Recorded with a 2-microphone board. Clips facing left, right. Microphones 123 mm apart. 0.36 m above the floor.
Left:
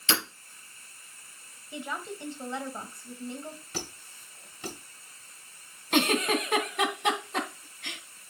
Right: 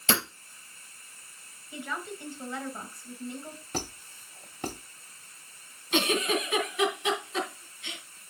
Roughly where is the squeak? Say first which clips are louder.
Right 3 dB; right.